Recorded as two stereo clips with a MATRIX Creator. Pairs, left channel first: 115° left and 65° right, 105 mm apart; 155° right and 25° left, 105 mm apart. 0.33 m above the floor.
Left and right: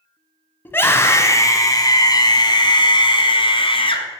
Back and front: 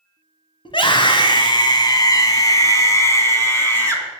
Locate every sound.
0.7 s a scream: straight behind, 1.8 m; by 4.2 s 135° left, 2.5 m